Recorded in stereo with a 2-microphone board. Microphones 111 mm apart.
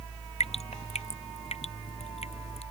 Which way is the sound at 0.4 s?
85° left.